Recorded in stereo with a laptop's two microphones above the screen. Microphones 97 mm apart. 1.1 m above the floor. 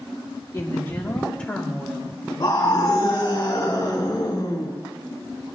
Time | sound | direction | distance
0.5 | a woman speaking | 30° left (ahead or behind) | 2.5 m
2.4 | a scream | 45° left (ahead or behind) | 4 m